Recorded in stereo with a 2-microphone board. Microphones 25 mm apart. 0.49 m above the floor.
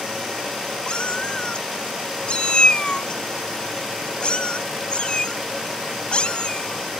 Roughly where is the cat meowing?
Left.